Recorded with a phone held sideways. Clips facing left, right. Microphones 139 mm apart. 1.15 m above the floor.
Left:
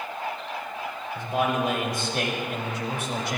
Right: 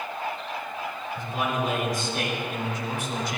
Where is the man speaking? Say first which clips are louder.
Left 4 dB; 75° left (ahead or behind), 5.5 m; by 3.4 s 70° left (ahead or behind), 4 m.